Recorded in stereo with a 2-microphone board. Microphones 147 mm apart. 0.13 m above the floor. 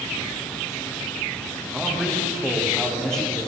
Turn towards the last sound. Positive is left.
turn(degrees=5)  # may be behind; listen again after turning